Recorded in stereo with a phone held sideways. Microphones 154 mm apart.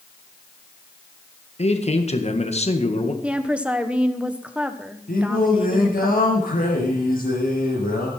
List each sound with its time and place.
1.6 s a man speaking: 45° left (ahead or behind), 1.7 m
3.2 s a woman speaking: 5° right (ahead or behind), 1.2 m
5.1 s singing: 70° left (ahead or behind), 5 m